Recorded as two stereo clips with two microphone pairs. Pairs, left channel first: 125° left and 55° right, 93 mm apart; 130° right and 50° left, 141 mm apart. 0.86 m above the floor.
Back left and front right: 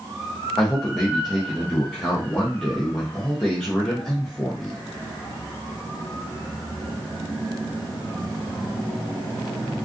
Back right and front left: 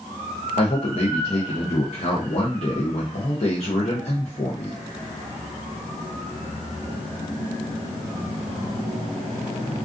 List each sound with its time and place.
0.6 s a man speaking: 150° right, 0.6 m